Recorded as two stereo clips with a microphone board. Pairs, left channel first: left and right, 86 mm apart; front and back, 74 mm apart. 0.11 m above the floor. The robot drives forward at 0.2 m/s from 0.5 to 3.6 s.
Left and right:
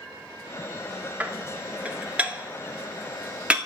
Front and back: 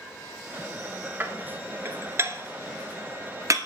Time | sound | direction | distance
1.2 | dishes clattering | 145° right | 0.9 m